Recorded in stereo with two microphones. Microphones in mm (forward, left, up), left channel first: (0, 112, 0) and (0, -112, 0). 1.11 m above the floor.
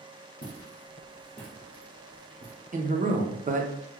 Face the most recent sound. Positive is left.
turn(degrees=-35)  # may be behind; listen again after turning